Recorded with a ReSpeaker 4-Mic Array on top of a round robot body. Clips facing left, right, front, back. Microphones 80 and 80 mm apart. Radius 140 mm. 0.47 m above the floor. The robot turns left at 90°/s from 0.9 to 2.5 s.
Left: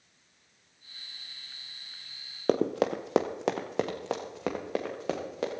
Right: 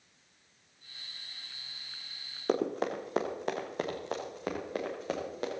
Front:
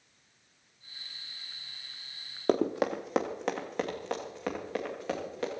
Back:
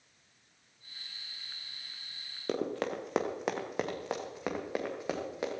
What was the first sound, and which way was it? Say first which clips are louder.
Running footsteps: left 4 dB, front 6 dB; 50° left.